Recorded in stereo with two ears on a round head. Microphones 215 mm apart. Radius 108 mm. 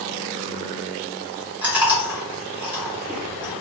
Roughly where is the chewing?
Centre.